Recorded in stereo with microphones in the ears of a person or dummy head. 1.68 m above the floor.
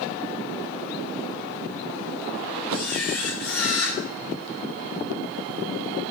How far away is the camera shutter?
About 3 m.